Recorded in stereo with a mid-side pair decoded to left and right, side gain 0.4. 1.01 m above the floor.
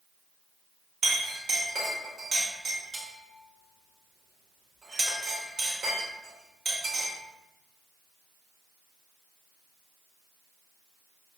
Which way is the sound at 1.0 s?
65° right.